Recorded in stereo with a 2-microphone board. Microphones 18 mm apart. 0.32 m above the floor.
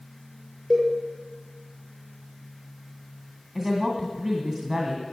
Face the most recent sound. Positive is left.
turn(degrees=-15)  # may be behind; listen again after turning